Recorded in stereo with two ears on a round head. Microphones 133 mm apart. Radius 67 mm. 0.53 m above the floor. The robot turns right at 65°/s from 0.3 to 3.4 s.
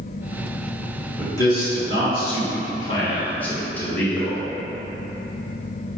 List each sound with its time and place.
1.2 s a man speaking: 20° left, 1.7 m; by 4.4 s 165° left, 1.7 m